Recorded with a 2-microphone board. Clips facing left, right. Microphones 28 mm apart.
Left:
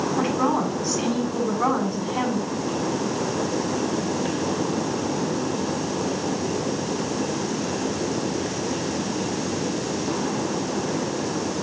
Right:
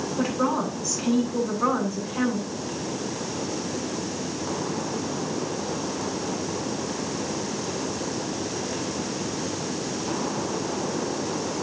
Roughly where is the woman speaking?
Left.